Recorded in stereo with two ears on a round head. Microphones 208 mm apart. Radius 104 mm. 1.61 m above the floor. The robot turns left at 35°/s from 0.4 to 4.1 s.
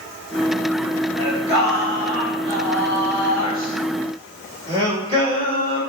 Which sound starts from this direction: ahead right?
Singing, at 1.2 s.